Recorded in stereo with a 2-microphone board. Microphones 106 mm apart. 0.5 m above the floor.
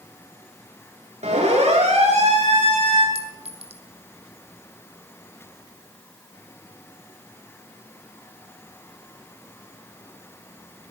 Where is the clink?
65° right (ahead or behind), 2.5 m.